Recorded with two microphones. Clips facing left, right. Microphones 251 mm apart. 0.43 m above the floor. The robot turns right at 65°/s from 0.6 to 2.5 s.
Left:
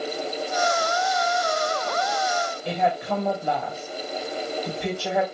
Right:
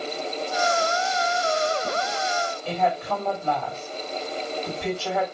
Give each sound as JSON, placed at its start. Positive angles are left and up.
{"t": 2.6, "sound": "a woman speaking", "side_deg": 15, "distance_m": 2.5}